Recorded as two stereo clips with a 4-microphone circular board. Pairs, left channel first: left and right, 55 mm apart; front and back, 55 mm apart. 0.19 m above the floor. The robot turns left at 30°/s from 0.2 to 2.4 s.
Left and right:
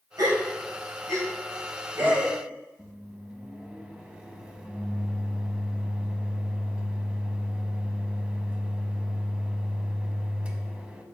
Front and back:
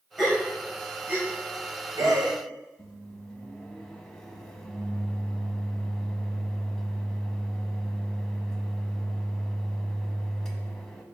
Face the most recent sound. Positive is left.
turn(degrees=-65)